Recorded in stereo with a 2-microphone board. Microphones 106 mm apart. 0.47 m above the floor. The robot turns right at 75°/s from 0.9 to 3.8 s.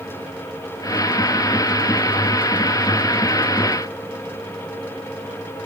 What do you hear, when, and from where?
Only background noise.